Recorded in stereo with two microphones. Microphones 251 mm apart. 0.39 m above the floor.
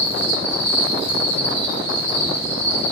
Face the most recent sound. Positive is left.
turn(degrees=-10)  # may be behind; listen again after turning